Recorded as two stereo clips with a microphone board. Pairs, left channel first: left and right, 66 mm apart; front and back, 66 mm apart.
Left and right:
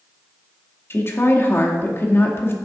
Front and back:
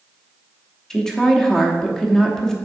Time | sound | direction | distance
0.9 | a woman speaking | 75° left | 0.9 m